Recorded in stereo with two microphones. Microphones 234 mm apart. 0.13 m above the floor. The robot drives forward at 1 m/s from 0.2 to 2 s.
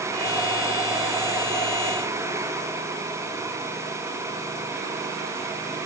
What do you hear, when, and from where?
Only background noise.